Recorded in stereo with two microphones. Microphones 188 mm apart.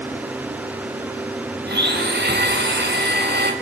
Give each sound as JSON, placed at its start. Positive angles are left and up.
{"t": 1.6, "sound": "a blender", "side_deg": -70, "distance_m": 4.5}